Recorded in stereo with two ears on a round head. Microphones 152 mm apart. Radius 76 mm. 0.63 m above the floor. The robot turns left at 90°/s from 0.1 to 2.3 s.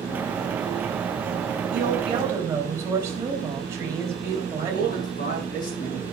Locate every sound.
1.7 s a woman speaking: 110° right, 4 m; by 5.1 s 160° right, 4 m
4.6 s a man speaking: 55° left (ahead or behind), 6 m